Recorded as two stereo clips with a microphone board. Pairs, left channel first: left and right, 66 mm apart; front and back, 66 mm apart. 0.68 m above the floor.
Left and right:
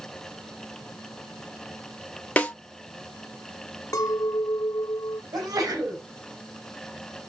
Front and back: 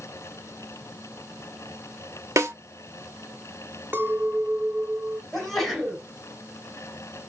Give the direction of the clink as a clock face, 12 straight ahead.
8 o'clock.